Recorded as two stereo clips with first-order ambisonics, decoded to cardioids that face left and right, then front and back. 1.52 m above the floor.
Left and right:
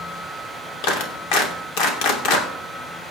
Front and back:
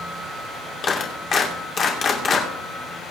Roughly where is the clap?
Ahead left.